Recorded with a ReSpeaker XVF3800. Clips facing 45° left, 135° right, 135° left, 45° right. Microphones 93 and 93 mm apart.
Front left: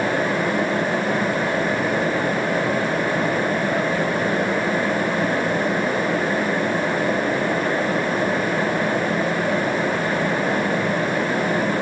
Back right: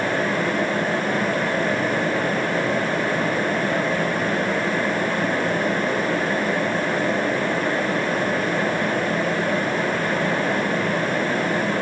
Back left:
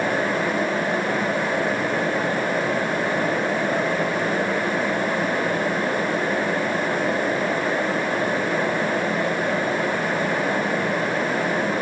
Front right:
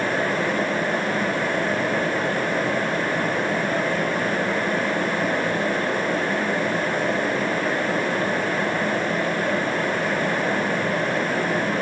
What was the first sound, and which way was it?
Only background noise.